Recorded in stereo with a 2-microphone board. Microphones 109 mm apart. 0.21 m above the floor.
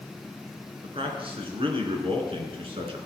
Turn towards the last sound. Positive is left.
turn(degrees=-60)  # may be behind; listen again after turning